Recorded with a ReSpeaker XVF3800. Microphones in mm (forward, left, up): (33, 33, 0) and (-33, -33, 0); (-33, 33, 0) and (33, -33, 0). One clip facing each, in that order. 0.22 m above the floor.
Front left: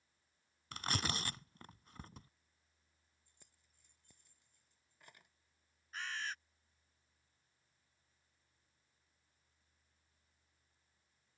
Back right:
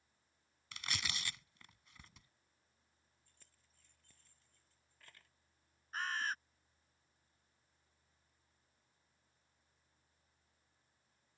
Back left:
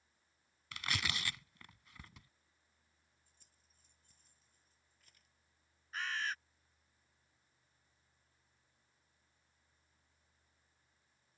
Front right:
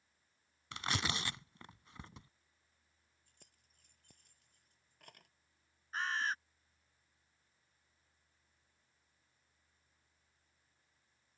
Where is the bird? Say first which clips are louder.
Back right 4 dB, front right 3 dB; 95° right.